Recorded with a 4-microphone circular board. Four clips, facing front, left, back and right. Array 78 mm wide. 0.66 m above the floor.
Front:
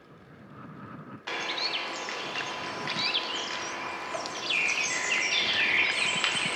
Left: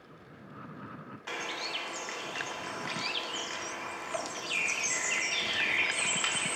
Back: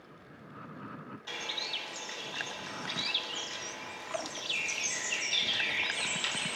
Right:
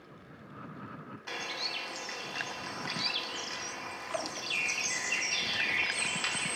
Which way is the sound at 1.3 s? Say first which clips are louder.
Left 2 dB, front 7 dB; 15° left.